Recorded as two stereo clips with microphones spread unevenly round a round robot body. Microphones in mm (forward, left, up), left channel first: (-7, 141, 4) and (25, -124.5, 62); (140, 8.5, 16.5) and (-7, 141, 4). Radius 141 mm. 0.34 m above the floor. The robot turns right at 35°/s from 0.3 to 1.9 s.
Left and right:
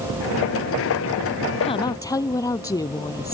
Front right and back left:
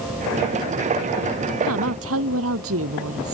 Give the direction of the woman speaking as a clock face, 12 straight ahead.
7 o'clock.